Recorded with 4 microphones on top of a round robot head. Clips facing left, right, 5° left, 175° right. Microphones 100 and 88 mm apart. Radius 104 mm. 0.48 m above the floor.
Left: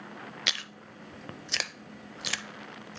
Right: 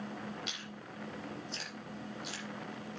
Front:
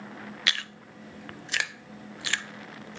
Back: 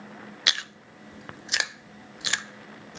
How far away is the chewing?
About 0.5 m.